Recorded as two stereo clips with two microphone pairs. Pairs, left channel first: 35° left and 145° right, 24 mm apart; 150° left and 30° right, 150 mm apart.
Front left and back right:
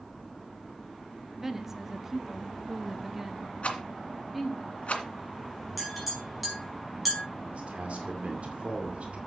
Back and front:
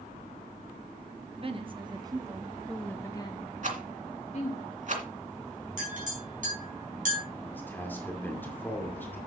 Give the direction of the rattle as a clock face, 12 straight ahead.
12 o'clock.